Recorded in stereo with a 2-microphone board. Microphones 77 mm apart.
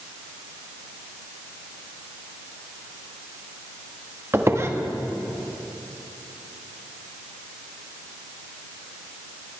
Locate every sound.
4.3 s a squeak: 35° right (ahead or behind), 1.1 m